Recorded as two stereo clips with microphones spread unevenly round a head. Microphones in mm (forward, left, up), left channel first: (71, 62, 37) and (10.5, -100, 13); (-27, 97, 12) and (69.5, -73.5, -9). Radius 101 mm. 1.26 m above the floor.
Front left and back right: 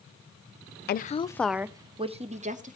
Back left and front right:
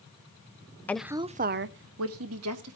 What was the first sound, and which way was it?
A woman speaking, 35° left.